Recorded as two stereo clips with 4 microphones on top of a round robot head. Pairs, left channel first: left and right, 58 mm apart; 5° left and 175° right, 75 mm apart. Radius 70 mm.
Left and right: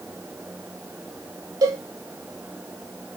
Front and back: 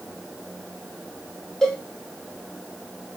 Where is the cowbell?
80° right, 1.4 m.